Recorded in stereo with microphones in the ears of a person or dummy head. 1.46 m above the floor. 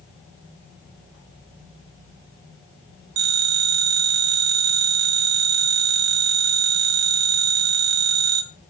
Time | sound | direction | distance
3.2 | a phone ringing | 65° right (ahead or behind) | 3.5 m